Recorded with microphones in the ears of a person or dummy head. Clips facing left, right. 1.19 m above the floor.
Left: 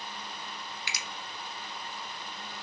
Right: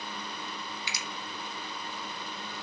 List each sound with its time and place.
0.9 s a finger snap: 50° left (ahead or behind), 0.5 m